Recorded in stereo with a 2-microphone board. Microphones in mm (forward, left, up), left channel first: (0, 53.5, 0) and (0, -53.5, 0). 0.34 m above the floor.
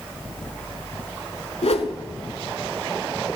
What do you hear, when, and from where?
1.6 s a whoosh: 70° left (ahead or behind), 0.7 m